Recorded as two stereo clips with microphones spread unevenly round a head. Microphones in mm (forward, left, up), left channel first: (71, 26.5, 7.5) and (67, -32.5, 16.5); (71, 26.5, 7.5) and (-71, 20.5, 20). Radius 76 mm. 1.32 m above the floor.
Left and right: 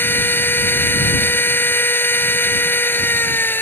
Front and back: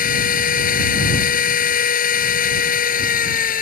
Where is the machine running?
30° left.